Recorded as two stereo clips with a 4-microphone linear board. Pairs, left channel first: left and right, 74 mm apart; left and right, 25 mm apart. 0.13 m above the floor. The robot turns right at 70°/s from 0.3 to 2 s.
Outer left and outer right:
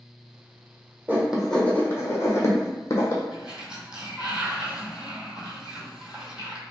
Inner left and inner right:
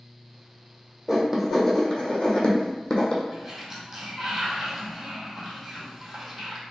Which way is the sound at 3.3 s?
10° right (ahead or behind).